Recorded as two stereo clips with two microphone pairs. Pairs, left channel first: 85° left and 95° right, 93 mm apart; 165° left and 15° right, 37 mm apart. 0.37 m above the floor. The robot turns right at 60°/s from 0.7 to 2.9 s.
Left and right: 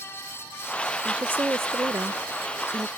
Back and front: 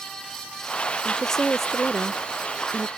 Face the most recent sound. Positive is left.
turn(degrees=-45)